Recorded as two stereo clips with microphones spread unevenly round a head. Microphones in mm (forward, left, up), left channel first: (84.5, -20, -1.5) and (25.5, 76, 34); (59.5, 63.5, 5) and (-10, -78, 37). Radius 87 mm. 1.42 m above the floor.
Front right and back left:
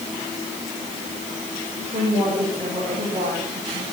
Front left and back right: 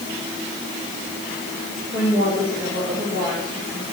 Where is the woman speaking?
170° left, 8.5 m.